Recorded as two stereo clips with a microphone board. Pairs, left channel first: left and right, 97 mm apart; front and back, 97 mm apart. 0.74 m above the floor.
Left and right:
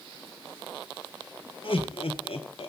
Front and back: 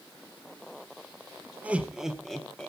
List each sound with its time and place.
1.6 s laughter: 105° left, 1.7 m; by 2.7 s 75° left, 2.0 m